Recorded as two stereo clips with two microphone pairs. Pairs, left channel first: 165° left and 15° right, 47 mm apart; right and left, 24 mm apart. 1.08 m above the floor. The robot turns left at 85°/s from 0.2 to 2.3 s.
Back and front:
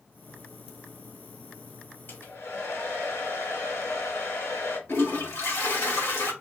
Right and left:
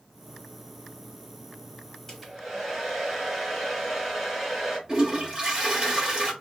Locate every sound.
2.1 s a hair dryer: 165° right, 2.5 m; by 4.8 s 175° left, 2.5 m
4.9 s a toilet flushing: 150° left, 1.9 m